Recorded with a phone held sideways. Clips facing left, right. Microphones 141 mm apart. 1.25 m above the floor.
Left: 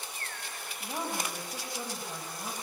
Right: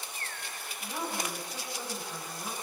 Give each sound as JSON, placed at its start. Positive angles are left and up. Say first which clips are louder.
{"t": 0.8, "sound": "a woman speaking", "louder": "even", "side_deg": 25, "distance_m": 7.0}